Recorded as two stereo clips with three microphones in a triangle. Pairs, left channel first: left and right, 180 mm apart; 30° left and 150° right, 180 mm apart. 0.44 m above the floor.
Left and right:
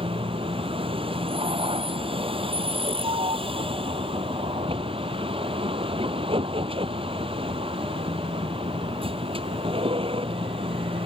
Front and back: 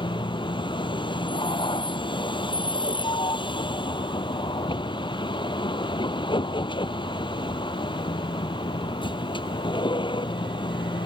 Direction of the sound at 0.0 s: 30° right.